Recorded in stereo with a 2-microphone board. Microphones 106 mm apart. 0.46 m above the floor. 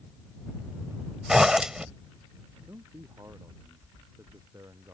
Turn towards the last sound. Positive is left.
turn(degrees=-25)  # may be behind; listen again after turning